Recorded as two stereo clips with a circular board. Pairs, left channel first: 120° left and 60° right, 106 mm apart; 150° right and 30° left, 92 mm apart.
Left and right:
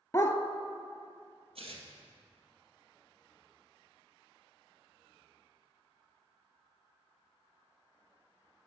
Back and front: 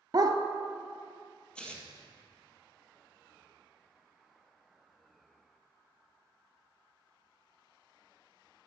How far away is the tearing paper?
About 1.7 m.